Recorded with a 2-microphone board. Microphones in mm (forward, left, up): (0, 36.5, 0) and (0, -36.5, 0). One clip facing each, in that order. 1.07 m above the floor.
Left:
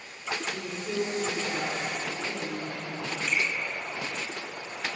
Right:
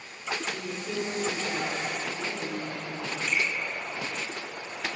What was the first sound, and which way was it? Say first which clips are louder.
A woman speaking: left 1 dB; 15° left (ahead or behind).